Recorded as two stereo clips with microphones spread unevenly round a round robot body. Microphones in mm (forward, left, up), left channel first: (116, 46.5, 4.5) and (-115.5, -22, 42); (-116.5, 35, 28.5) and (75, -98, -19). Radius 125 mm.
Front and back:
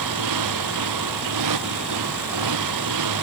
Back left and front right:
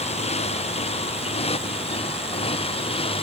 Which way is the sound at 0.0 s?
150° right.